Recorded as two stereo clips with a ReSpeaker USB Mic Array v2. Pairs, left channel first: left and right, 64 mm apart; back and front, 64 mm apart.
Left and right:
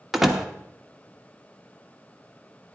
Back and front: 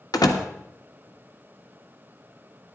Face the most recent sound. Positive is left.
turn(degrees=-175)